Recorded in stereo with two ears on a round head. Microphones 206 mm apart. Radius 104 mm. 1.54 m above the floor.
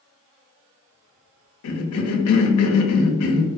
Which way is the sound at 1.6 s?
70° left (ahead or behind).